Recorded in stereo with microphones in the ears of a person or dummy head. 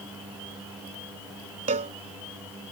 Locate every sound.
1.7 s a cowbell: 30° right (ahead or behind)